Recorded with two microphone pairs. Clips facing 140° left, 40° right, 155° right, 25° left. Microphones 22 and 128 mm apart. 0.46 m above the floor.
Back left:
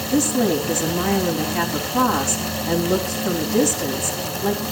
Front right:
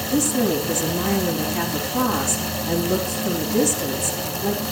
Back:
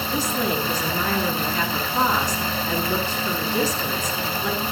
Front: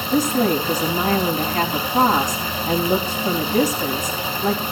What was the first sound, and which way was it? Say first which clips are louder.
A woman speaking: back left 2 dB, front 7 dB; 70° left.